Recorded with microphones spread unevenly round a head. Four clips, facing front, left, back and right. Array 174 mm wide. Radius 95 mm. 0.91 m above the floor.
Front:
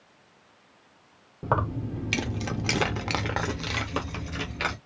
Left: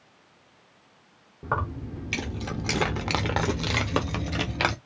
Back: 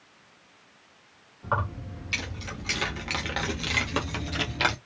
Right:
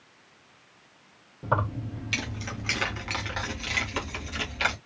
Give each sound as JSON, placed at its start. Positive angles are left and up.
{"t": 1.4, "sound": "keys jangling", "azimuth_deg": 5, "distance_m": 1.1}